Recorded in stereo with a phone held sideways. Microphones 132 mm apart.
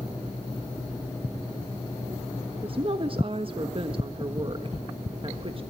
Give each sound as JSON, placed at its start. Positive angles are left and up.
{"t": 2.6, "sound": "a woman speaking", "side_deg": -40, "distance_m": 1.3}